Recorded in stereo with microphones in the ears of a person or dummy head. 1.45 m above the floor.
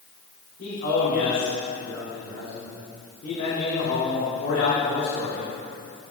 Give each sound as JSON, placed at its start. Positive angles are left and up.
{"t": 0.6, "sound": "a man speaking", "side_deg": 40, "distance_m": 3.5}